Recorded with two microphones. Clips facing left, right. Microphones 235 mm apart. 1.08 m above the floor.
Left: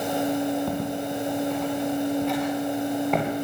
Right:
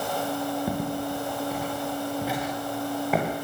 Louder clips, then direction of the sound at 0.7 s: Left 1 dB; 10° right (ahead or behind).